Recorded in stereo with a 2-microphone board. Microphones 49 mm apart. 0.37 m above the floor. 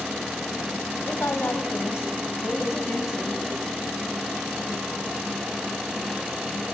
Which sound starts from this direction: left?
A woman speaking, at 1.1 s.